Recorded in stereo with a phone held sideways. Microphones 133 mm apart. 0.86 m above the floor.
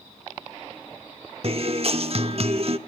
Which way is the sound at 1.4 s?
50° right (ahead or behind).